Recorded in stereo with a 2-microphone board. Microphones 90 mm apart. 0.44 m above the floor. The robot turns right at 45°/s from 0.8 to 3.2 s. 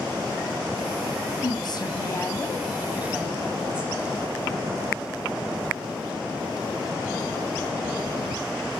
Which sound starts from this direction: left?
A woman speaking, at 1.4 s.